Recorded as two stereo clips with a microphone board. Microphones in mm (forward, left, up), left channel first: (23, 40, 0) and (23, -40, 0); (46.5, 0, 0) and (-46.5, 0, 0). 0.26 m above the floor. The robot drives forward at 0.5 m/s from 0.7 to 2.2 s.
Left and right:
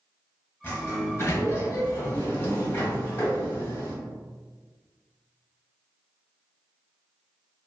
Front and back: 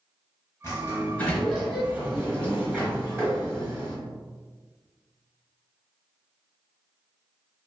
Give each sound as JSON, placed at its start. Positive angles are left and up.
{"t": 0.6, "sound": "a sliding door", "azimuth_deg": 40, "distance_m": 0.8}